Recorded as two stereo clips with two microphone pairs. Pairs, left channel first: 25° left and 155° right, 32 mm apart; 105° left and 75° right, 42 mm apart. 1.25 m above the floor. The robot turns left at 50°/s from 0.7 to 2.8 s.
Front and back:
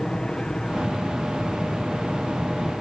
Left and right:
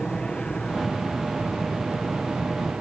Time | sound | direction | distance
0.0 | an aircraft | 60° left | ?